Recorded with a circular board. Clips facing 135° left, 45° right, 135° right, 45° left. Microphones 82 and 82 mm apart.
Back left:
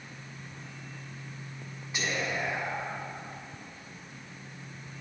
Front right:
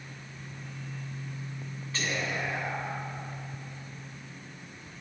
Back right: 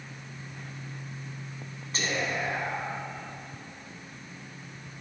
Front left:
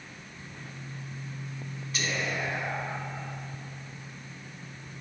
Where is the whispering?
165° right, 1.3 m.